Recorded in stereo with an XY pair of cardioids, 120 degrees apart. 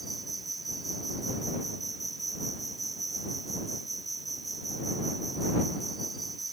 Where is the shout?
I don't hear a shout.